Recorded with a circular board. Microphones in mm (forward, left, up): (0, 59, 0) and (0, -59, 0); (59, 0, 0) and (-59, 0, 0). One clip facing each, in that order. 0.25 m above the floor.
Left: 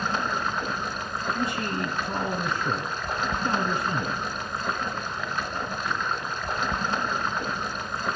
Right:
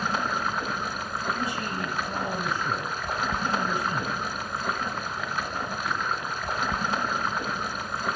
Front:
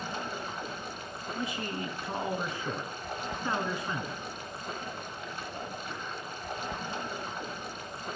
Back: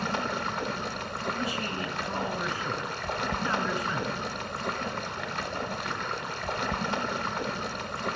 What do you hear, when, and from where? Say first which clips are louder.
0.0 s running water: even, back 6 dB; 175° right, 0.8 m
1.4 s a man speaking: left 2 dB, back 3 dB; 75° left, 1.9 m